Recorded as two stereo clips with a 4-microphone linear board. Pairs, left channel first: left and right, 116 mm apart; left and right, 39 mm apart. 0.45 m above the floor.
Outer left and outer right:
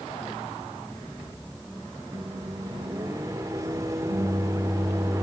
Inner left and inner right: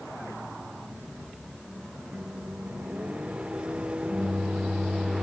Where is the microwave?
25° right (ahead or behind), 0.7 m.